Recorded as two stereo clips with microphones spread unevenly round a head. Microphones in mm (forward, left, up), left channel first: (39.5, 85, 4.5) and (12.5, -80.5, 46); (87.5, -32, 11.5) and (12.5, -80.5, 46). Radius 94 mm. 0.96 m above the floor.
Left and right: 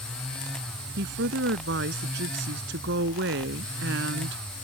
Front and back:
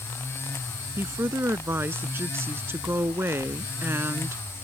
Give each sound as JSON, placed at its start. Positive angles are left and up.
{"t": 1.0, "sound": "a woman speaking", "azimuth_deg": -85}